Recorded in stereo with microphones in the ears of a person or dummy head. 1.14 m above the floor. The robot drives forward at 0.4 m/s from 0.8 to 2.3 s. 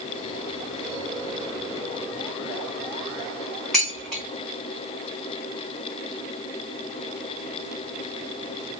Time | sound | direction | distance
3.7 | dishes clattering | centre (ahead or behind) | 1.2 m